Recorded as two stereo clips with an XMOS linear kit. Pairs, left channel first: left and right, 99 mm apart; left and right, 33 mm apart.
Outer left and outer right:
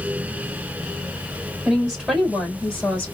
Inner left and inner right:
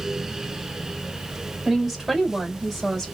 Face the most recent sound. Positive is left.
turn(degrees=10)  # may be behind; listen again after turning